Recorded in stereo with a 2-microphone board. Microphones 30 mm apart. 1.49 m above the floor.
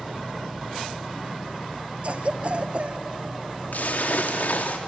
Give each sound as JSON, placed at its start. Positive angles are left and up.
{"t": 2.0, "sound": "a cough", "side_deg": -45, "distance_m": 1.1}
{"t": 3.7, "sound": "a splash", "side_deg": 70, "distance_m": 2.0}